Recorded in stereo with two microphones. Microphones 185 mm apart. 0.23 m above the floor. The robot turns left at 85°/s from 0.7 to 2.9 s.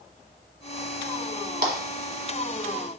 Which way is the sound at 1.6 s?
55° right (ahead or behind).